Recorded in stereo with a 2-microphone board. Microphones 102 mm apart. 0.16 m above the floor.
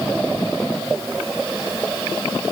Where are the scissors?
No scissors in this recording.